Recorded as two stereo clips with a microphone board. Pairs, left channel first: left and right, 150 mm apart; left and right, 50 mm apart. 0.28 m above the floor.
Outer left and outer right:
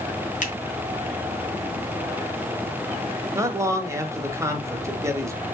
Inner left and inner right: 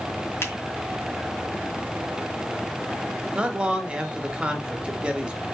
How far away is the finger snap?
About 2 m.